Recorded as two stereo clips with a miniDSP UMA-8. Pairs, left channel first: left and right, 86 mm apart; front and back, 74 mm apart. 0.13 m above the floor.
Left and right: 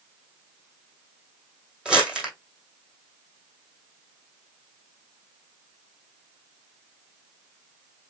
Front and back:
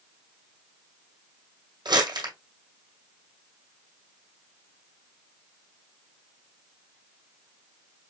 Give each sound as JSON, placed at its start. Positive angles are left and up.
{"t": 1.9, "sound": "crumpling", "azimuth_deg": -170, "distance_m": 2.0}